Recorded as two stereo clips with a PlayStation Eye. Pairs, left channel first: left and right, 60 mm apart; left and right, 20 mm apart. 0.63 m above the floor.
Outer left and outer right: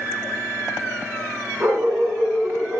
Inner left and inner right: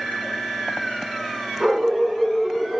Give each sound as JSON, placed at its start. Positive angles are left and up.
{"t": 1.6, "sound": "a dog barking", "side_deg": -35, "distance_m": 2.5}